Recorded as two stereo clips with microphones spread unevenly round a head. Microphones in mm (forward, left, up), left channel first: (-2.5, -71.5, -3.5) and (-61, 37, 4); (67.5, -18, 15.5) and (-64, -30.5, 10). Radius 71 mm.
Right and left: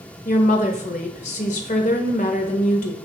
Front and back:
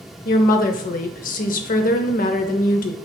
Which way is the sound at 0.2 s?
15° right.